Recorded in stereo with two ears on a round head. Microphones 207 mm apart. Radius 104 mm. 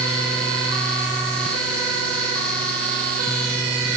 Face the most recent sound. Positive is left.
No sound to turn to.